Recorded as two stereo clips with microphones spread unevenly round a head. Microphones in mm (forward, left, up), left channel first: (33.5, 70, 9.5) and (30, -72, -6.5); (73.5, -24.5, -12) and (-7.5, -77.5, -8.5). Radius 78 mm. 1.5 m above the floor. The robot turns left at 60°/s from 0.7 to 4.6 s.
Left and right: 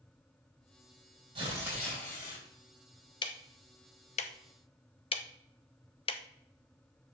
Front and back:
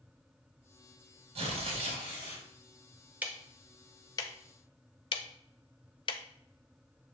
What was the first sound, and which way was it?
Tearing paper, 150° right.